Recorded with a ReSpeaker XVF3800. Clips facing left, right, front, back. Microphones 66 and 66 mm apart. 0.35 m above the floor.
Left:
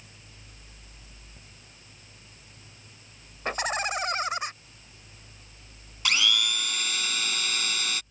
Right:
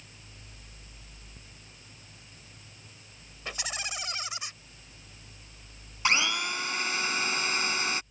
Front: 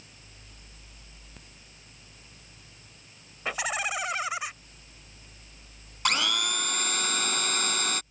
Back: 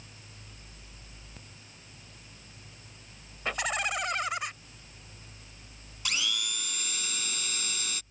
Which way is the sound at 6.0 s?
30° right.